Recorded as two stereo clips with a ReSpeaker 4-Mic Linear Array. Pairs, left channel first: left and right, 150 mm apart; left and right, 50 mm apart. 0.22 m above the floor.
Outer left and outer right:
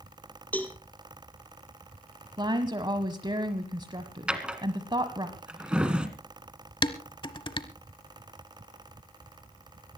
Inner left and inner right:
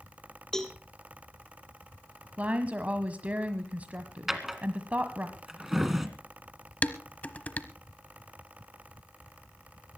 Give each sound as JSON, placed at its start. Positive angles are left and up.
{"t": 0.5, "sound": "a cowbell", "side_deg": 10, "distance_m": 1.7}
{"t": 2.4, "sound": "a woman speaking", "side_deg": -30, "distance_m": 1.2}
{"t": 4.3, "sound": "a drawer", "side_deg": -5, "distance_m": 1.6}
{"t": 6.8, "sound": "dishes clattering", "side_deg": 30, "distance_m": 0.9}